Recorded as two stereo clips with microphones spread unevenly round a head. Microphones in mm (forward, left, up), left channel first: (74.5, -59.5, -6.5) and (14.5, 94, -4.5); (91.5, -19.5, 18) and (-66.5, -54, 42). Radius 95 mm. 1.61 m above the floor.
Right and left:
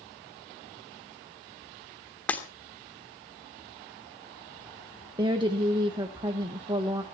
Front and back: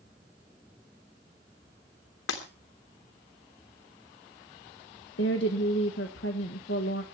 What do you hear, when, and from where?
2.3 s breaking glass: 15° left, 2.5 m
5.2 s a woman speaking: 50° left, 1.4 m